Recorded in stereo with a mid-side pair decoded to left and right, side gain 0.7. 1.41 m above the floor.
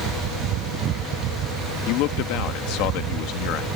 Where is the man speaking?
65° left.